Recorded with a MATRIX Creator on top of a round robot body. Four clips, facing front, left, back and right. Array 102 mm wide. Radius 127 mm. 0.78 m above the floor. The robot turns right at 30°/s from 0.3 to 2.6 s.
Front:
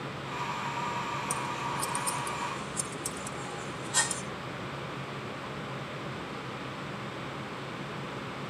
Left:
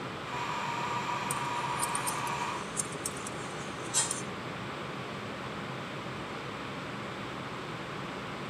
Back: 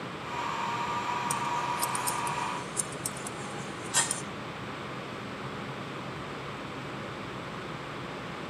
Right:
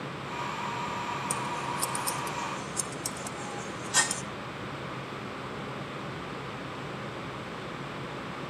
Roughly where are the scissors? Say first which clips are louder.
Even, back 3 dB; behind right.